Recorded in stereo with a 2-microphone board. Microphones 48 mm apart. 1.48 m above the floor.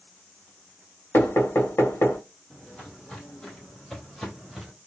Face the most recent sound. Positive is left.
turn(degrees=0)  # may be behind; listen again after turning